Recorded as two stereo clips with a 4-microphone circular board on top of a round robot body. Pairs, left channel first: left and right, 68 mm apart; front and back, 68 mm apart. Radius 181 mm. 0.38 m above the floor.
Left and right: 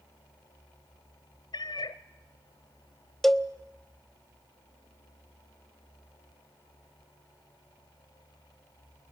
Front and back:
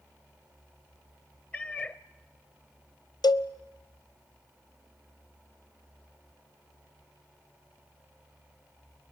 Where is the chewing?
No chewing in this recording.